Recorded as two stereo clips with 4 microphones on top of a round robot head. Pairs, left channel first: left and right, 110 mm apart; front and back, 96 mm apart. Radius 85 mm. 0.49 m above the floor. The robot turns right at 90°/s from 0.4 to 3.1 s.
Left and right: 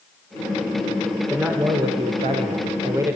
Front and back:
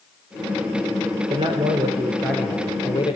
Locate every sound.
1.3 s a man speaking: 170° left, 2.5 m; by 3.2 s 25° right, 2.5 m